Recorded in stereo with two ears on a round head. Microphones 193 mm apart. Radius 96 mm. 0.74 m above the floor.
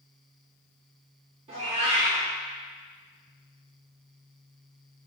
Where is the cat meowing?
30° right (ahead or behind), 0.7 m.